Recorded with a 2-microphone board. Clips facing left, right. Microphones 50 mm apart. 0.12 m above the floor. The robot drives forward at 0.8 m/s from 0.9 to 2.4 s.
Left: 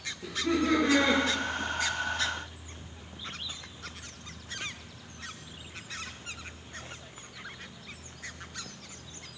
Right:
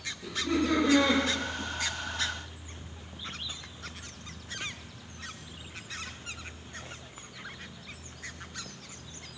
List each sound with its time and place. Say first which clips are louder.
0.2 s laughter: left 1 dB; 45° left (ahead or behind), 2.0 m